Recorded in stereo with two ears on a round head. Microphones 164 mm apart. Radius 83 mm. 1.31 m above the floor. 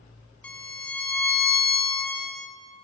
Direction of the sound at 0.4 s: 5° left (ahead or behind).